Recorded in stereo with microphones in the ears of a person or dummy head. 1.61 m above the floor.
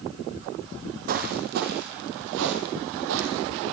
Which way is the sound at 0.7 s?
40° right (ahead or behind).